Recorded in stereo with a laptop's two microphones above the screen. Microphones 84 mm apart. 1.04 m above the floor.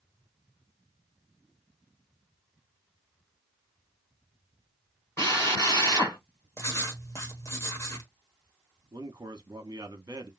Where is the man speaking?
50° right (ahead or behind), 1.0 m.